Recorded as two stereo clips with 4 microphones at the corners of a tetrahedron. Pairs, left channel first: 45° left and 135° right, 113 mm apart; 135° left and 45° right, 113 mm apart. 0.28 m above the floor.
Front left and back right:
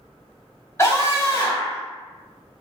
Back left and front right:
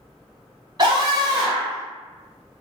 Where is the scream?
10° right, 1.5 m.